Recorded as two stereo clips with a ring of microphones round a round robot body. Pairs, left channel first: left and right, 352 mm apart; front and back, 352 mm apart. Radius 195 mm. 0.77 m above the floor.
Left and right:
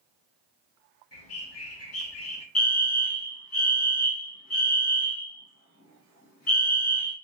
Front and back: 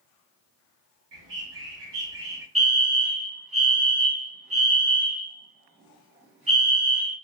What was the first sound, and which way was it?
A bird, 130° left.